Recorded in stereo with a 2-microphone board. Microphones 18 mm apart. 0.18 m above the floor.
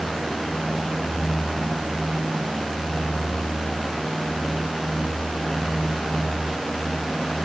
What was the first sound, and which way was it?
Only background noise.